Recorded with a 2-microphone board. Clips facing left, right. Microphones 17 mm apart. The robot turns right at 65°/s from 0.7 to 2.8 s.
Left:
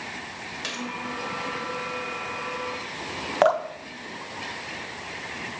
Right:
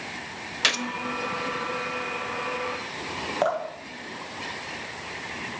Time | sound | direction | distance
0.6 | a gunshot | 50° right (ahead or behind) | 0.7 m
3.4 | dripping | 25° left (ahead or behind) | 0.9 m